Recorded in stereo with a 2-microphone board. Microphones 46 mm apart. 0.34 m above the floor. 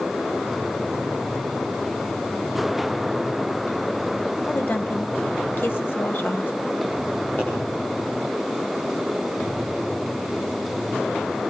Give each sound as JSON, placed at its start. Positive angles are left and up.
{"t": 4.5, "sound": "a woman speaking", "side_deg": 50, "distance_m": 1.9}
{"t": 7.4, "sound": "a pop", "side_deg": 40, "distance_m": 9.5}